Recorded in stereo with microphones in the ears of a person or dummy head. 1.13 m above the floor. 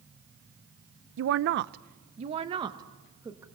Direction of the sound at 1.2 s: 60° right (ahead or behind).